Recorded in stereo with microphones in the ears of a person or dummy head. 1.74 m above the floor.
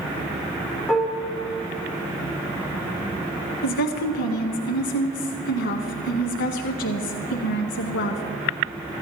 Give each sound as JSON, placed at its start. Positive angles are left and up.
{"t": 0.9, "sound": "dishes clattering", "side_deg": 5, "distance_m": 4.0}
{"t": 3.6, "sound": "a woman speaking", "side_deg": 65, "distance_m": 0.8}